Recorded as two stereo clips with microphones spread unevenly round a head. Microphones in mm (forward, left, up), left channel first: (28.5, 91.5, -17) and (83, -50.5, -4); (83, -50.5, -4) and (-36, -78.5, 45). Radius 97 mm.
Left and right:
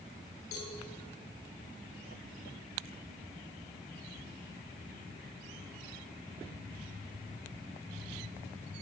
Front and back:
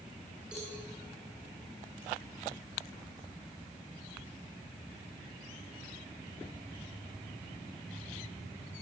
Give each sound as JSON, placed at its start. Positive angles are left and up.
{"t": 0.5, "sound": "a cowbell", "azimuth_deg": 110, "distance_m": 9.0}